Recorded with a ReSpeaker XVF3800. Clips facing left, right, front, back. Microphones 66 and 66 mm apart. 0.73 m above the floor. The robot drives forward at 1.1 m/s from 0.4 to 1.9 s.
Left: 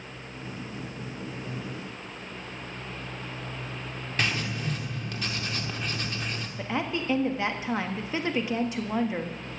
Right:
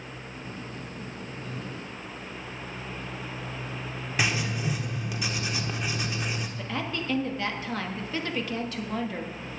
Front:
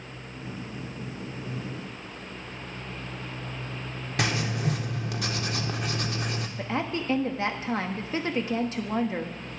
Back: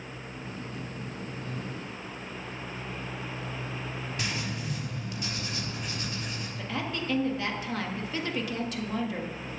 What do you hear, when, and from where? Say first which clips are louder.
4.2 s writing: right 1 dB, front 9 dB; 10° right, 1.3 m
6.6 s a woman speaking: left 5 dB, front 4 dB; 35° left, 1.2 m